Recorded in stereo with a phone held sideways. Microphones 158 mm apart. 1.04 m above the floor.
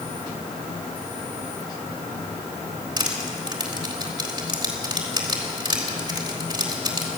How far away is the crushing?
About 3.5 m.